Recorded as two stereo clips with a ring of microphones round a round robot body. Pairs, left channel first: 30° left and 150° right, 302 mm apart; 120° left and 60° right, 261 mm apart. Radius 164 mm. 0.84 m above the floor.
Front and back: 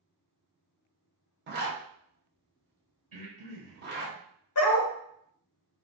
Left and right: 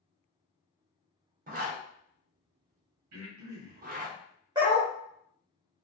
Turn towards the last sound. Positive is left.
turn(degrees=10)